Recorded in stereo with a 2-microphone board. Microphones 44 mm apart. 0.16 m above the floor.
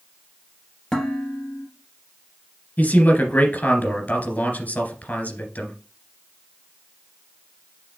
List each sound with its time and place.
0.9 s dishes clattering: 15° left (ahead or behind), 2.0 m
2.8 s a man speaking: 45° left (ahead or behind), 2 m